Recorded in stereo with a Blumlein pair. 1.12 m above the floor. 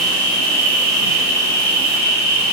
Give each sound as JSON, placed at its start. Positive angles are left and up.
{"t": 0.0, "sound": "an insect", "azimuth_deg": -40, "distance_m": 0.9}